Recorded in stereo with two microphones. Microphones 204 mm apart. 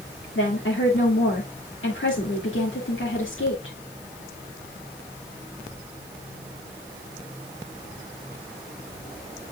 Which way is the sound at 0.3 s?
75° left (ahead or behind).